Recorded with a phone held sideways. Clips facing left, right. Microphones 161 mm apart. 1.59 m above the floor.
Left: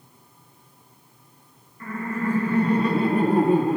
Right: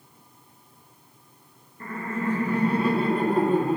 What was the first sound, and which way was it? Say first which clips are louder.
Laughter: left 2 dB; 35° right (ahead or behind).